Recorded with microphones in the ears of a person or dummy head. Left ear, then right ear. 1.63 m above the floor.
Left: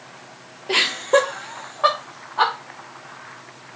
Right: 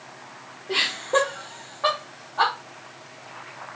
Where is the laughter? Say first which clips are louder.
Left 5 dB; 80° left, 0.6 m; by 2.5 s 20° left (ahead or behind), 1.1 m.